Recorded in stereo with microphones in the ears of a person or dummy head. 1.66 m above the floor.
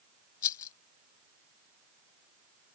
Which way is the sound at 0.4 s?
20° left (ahead or behind).